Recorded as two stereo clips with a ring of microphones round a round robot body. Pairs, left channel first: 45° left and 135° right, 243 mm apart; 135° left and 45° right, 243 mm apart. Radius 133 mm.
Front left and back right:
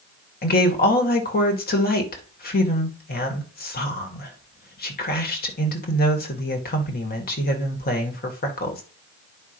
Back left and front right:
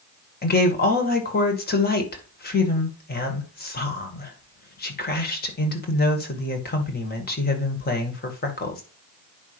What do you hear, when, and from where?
0.4 s a woman speaking: 90° left, 2.5 m